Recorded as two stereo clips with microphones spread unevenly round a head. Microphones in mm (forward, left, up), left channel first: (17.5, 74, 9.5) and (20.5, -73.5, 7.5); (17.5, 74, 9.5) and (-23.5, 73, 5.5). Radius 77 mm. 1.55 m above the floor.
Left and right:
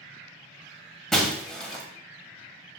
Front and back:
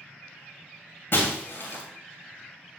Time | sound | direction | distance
1.1 | breaking glass | 5° left | 2 m